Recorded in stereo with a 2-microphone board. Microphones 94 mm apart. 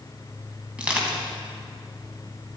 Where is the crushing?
15° right (ahead or behind), 3.5 m.